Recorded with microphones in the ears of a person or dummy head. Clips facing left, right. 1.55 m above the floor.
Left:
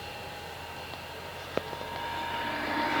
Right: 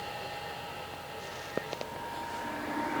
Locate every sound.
Only background noise.